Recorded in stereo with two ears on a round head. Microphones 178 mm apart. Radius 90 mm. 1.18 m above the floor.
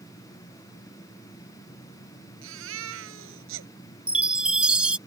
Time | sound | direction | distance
2.4 | a baby crying | 80° right | ?
4.1 | a chime | 5° right (ahead or behind) | ?